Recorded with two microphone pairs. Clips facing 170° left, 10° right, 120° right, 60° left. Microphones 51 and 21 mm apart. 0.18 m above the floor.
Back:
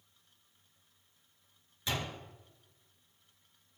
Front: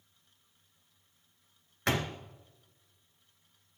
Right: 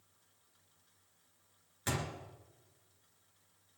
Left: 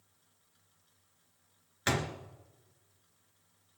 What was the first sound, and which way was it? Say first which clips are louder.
A door slam: front 6 dB, left 6 dB; 10° left.